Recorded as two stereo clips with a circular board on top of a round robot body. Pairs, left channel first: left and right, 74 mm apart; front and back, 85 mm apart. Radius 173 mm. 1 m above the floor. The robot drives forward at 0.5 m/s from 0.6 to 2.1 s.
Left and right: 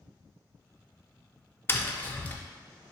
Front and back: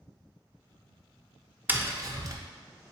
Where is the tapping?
125° left, 0.5 m; by 2.4 s 150° left, 0.6 m.